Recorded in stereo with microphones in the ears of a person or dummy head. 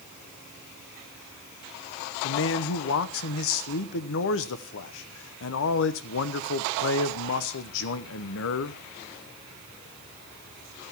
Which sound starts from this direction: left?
A man speaking, at 2.2 s.